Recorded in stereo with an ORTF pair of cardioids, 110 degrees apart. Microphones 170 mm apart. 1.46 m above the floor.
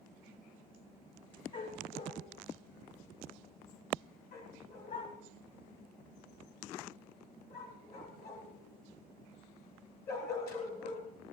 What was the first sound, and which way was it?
A dog barking, 60° left.